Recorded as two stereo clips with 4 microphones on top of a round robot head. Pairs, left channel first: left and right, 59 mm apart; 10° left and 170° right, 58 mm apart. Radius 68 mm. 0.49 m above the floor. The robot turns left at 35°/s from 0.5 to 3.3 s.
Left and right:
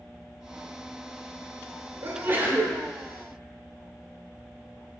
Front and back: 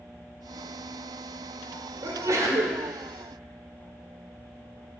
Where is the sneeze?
135° right, 1.3 m; by 2.8 s 165° right, 1.3 m.